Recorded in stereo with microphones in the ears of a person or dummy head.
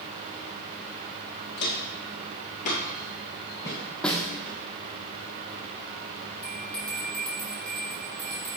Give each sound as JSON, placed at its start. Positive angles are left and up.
{"t": 1.6, "sound": "footsteps", "side_deg": 55, "distance_m": 2.0}
{"t": 4.0, "sound": "a snare drum", "side_deg": 5, "distance_m": 0.9}
{"t": 6.4, "sound": "a bell", "side_deg": 5, "distance_m": 2.5}